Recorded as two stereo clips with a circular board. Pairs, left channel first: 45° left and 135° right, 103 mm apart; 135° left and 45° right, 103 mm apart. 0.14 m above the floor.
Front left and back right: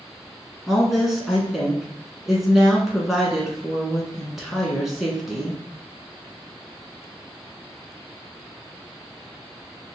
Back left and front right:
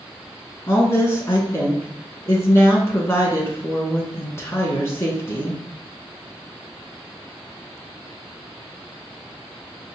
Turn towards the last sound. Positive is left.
turn(degrees=145)